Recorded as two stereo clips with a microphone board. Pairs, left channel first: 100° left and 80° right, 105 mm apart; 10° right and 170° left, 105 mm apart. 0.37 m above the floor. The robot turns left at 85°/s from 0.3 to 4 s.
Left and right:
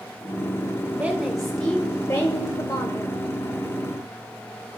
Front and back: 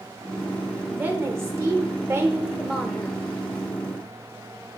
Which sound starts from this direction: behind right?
A woman speaking, at 0.8 s.